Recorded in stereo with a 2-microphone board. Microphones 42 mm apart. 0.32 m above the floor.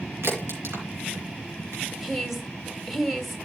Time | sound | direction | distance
0.2 | a crack | 75° right (ahead or behind) | 4 m
2.0 | a woman speaking | centre (ahead or behind) | 1.8 m